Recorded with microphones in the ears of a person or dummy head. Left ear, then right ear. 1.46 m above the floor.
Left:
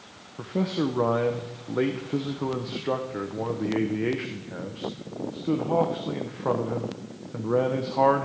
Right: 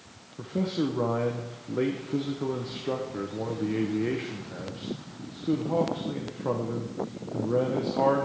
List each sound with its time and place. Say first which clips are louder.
0.4 s a man speaking: left 2 dB; 25° left (ahead or behind), 0.8 m